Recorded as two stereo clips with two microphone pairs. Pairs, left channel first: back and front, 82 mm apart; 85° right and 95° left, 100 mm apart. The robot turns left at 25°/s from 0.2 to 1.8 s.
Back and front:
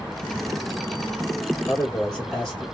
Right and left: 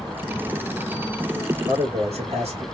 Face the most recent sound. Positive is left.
turn(degrees=95)